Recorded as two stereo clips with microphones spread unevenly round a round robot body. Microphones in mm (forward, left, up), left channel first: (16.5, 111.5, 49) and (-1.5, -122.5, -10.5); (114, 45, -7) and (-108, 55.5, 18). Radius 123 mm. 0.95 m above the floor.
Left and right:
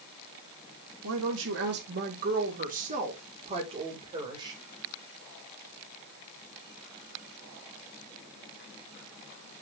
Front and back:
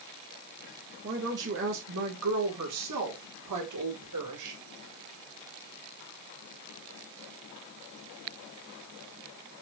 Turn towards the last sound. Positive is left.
turn(degrees=-170)